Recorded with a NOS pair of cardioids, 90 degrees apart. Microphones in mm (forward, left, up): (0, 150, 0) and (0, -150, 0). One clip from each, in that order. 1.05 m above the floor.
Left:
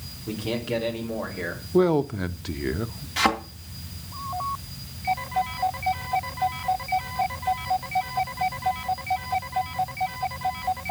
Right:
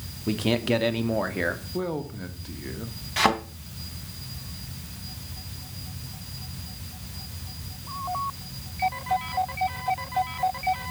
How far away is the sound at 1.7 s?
About 1.0 m.